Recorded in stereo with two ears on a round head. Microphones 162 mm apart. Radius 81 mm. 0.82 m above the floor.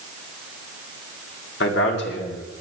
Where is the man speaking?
70° left (ahead or behind), 2.5 m; by 2.6 s 65° left (ahead or behind), 2.5 m.